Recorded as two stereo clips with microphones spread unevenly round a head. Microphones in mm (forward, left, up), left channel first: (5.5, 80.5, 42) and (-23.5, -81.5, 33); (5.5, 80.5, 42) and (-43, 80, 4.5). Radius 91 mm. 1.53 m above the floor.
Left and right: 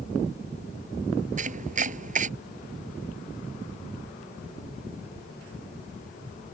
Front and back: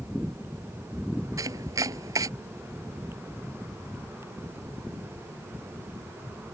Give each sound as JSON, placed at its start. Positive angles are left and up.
{"t": 1.4, "sound": "chopping", "azimuth_deg": -145}